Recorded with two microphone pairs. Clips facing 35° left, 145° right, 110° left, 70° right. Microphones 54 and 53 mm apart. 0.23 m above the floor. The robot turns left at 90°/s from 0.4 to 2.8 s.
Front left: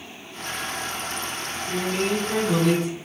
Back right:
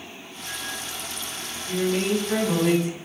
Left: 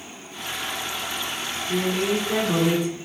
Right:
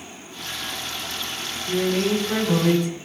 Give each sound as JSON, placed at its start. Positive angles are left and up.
{"t": 1.7, "sound": "a man speaking", "azimuth_deg": 0, "distance_m": 1.5}